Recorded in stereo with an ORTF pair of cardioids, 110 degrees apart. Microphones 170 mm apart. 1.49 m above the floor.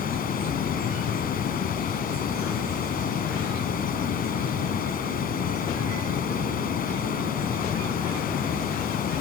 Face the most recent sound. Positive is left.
turn(degrees=60)